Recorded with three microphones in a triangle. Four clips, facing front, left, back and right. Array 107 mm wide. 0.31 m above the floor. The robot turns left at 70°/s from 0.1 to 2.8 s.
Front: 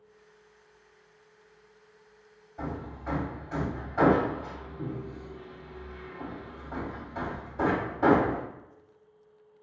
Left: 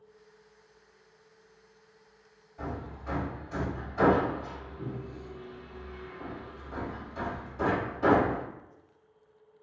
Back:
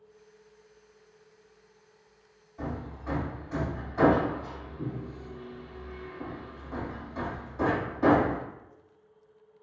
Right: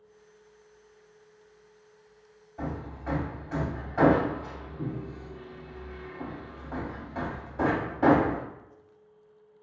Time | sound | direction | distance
2.6 | hammering | 40° right | 1.7 m